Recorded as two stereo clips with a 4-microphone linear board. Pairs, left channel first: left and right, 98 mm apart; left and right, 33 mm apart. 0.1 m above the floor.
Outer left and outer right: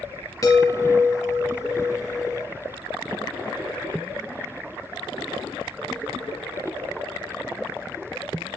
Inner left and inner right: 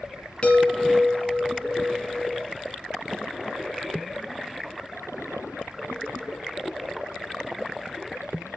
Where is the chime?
40° left (ahead or behind), 2.5 m.